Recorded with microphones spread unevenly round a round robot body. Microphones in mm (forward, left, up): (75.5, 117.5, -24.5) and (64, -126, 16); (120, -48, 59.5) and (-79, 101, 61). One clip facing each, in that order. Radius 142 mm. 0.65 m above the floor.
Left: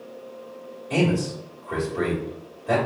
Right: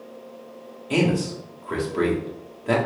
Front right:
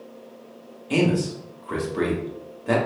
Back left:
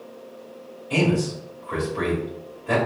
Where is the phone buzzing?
No phone buzzing in this recording.